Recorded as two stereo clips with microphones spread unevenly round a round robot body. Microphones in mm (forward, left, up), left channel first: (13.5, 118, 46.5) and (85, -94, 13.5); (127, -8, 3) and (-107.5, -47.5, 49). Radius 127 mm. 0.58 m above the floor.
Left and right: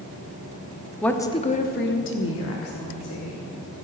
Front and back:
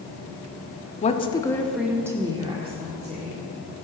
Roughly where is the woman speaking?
Ahead.